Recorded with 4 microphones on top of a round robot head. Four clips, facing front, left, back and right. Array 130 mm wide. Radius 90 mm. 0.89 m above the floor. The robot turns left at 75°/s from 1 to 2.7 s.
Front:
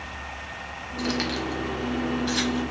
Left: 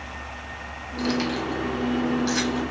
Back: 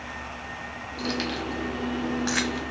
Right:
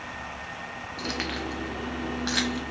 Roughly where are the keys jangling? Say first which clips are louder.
Left 8 dB, front 2 dB; ahead right.